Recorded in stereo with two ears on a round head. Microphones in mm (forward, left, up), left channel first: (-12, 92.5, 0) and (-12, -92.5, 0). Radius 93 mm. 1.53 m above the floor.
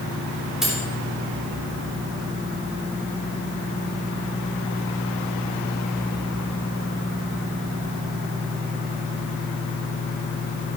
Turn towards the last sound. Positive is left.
turn(degrees=0)  # may be behind; listen again after turning